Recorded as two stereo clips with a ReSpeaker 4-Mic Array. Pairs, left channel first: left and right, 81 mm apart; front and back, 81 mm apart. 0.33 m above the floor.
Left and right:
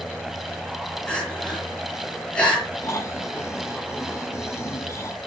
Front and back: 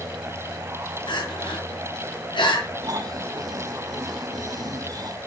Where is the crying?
10° left, 6 m.